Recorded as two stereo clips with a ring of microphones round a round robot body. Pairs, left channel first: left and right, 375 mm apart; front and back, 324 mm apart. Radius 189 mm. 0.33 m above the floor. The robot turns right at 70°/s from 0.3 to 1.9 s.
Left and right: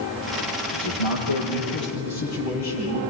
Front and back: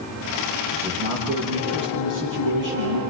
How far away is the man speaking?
About 9 m.